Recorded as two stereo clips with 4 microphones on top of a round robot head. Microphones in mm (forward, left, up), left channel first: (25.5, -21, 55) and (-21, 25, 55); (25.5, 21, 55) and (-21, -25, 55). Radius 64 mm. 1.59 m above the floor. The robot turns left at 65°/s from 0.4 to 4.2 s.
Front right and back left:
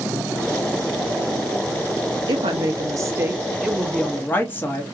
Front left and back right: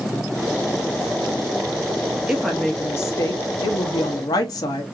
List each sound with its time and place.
2.3 s a woman speaking: 140° left, 0.8 m; by 4.8 s 15° left, 0.8 m